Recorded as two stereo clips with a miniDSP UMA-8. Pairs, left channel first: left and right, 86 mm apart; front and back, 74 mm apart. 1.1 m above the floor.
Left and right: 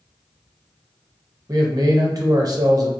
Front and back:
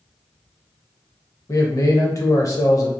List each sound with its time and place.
1.5 s a man speaking: 45° right, 0.9 m